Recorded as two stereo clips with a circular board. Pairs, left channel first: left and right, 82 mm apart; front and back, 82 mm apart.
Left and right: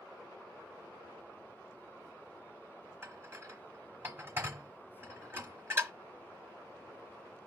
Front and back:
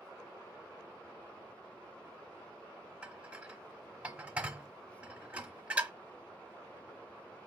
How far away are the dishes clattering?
About 1.0 m.